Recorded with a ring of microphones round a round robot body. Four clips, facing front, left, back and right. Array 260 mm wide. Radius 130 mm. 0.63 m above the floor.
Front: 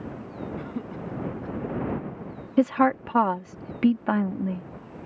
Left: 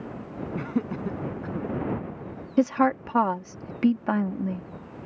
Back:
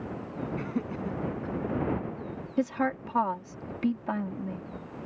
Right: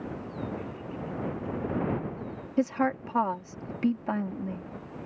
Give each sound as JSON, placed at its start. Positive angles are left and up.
{"t": 0.6, "sound": "laughter", "azimuth_deg": 100}
{"t": 2.6, "sound": "a woman speaking", "azimuth_deg": 35}